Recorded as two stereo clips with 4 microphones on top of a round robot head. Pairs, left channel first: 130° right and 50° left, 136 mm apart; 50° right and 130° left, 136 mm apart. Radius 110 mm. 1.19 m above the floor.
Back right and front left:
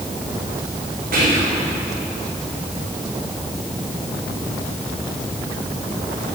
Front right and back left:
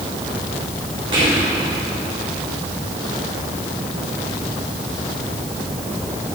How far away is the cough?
No cough in this recording.